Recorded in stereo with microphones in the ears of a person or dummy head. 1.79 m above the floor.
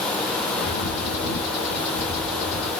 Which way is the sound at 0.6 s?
65° left (ahead or behind).